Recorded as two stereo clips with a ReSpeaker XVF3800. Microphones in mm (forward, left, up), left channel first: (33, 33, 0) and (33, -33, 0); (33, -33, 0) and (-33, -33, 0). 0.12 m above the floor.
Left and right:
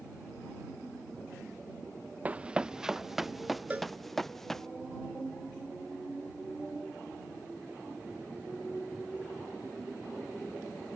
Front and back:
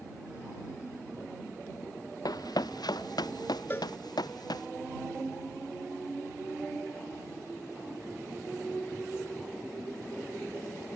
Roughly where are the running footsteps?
Ahead.